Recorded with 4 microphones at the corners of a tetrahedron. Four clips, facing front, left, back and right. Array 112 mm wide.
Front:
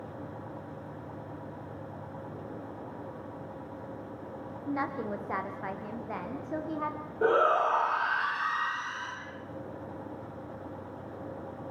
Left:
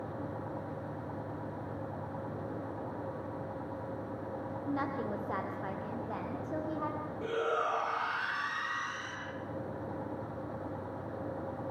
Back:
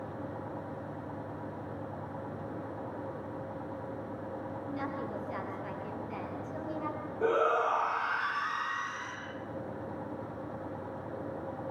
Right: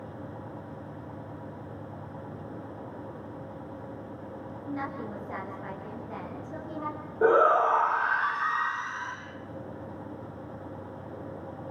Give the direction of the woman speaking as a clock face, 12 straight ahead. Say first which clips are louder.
Even, front 6 dB; 11 o'clock.